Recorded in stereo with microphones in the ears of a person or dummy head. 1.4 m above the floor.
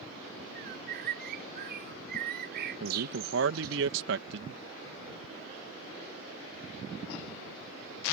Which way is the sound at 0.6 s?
55° right (ahead or behind).